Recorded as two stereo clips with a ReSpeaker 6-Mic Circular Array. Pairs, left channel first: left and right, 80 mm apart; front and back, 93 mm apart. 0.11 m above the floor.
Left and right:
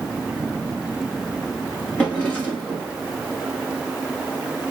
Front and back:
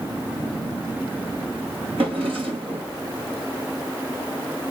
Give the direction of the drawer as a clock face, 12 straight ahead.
7 o'clock.